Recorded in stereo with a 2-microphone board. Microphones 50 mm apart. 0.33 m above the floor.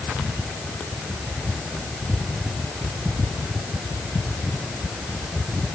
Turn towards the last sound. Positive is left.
No sound to turn to.